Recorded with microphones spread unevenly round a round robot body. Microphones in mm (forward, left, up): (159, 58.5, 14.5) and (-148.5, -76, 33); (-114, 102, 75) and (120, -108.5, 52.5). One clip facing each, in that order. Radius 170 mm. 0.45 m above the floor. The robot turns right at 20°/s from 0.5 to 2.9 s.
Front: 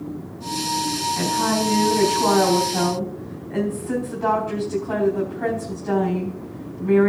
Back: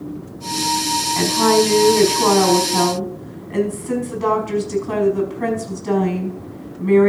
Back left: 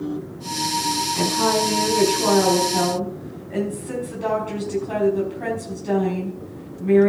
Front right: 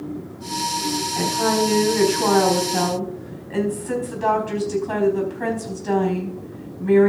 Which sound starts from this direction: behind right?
A woman speaking, at 1.1 s.